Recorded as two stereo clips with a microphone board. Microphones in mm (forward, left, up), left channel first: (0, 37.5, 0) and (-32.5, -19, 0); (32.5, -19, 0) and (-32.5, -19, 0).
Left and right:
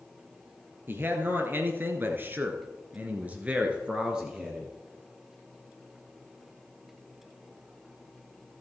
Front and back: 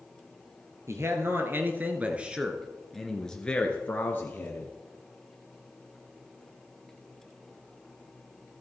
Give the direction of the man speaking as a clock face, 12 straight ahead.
5 o'clock.